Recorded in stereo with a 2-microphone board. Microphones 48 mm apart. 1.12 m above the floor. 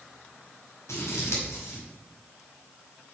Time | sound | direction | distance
0.9 | scissors | 75° left (ahead or behind) | 5 m